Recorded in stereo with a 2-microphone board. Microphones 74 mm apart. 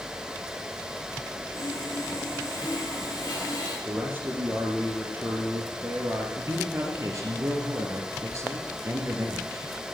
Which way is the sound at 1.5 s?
45° left (ahead or behind).